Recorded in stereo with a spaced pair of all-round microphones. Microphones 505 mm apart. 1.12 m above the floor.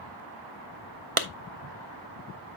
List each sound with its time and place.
1.2 s a clap: 80° right, 0.8 m